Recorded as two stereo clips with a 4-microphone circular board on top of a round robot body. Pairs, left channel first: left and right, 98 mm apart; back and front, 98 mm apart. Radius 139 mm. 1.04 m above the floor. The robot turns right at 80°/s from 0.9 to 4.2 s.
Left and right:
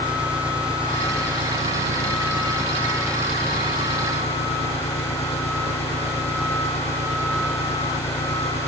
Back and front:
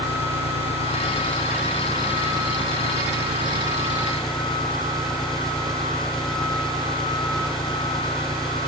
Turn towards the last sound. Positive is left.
turn(degrees=95)